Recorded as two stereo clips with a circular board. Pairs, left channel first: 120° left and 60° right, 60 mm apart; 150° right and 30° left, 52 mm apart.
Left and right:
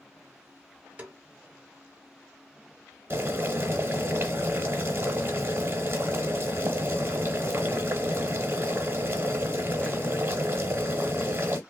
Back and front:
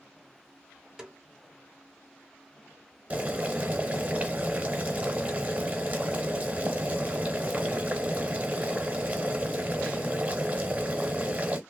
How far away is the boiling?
About 1.0 m.